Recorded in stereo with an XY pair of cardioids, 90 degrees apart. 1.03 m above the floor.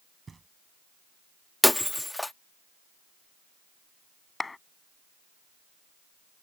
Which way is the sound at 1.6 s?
10° left.